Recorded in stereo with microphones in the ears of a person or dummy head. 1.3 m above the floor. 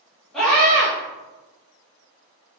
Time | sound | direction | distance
0.3 | a scream | centre (ahead or behind) | 1.7 m